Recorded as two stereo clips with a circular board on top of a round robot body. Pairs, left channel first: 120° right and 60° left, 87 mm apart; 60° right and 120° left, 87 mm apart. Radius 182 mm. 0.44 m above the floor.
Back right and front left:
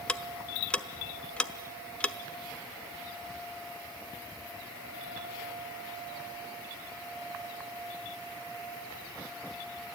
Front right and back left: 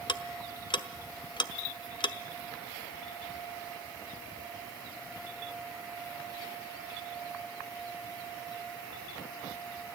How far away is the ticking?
About 1.0 m.